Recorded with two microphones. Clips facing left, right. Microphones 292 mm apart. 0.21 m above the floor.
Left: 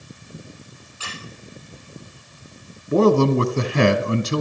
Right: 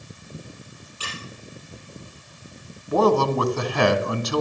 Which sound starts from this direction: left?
A man speaking, at 2.9 s.